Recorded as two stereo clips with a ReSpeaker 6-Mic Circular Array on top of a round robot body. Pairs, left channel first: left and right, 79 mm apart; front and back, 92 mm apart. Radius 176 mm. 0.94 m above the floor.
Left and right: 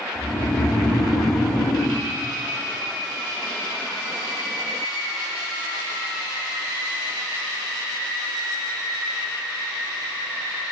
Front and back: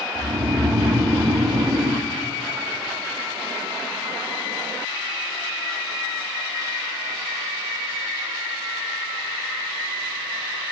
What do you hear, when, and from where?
0.1 s snoring: 125° left, 3 m